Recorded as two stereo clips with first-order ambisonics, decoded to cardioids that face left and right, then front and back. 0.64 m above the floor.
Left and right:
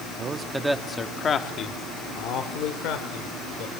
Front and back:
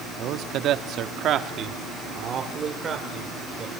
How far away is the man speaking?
About 1.0 m.